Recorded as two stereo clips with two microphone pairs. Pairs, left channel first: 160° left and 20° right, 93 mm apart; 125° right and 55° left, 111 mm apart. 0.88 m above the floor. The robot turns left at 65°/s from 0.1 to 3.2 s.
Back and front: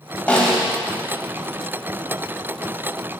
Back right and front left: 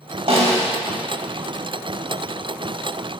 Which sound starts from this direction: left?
A snare drum, at 0.3 s.